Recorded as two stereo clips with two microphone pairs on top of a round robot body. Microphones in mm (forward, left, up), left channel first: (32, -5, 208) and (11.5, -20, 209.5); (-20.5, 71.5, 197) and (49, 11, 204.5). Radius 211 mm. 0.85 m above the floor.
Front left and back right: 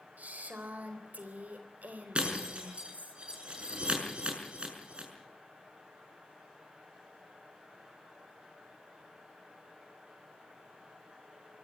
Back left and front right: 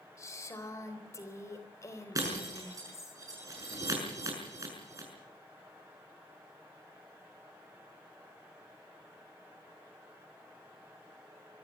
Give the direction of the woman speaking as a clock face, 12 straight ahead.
5 o'clock.